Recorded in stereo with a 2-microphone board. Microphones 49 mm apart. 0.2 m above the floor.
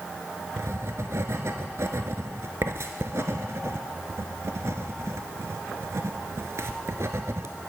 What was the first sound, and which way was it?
Writing, 70° right (ahead or behind).